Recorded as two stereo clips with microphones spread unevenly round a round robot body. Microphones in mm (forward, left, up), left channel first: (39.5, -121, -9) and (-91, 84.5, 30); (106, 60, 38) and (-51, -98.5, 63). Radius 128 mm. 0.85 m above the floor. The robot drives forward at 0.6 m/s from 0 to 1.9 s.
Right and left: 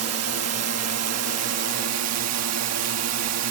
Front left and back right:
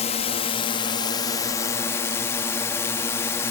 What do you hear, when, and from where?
0.0 s a drone: 95° left; by 3.5 s 120° left